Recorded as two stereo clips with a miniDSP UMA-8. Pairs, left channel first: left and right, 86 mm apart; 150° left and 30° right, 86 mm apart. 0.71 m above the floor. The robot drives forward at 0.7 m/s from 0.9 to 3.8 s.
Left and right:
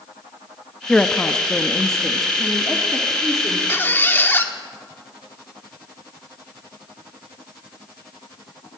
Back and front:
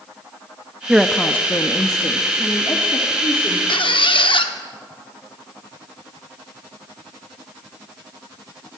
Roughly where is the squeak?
Behind left.